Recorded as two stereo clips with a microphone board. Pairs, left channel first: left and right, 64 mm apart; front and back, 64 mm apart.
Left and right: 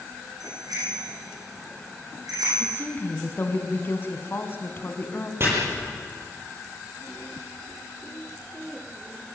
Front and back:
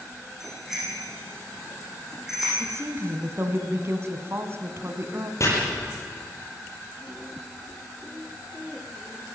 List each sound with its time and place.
0.4 s a bicycle bell: 95° right, 10 m
2.6 s a woman speaking: 140° left, 2.5 m
5.4 s chopping: 40° right, 8 m